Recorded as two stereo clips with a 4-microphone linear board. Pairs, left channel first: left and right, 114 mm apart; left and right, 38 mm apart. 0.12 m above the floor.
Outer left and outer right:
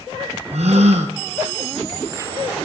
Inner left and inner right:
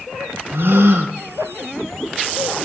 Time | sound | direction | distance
0.5 | a gasp | 70° right (ahead or behind) | 2.5 m